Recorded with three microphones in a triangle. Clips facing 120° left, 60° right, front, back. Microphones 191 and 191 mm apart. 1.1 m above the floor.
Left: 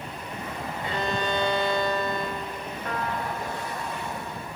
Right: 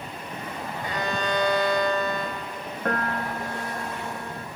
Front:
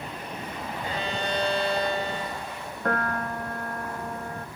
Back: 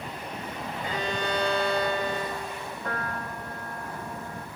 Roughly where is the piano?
Ahead right.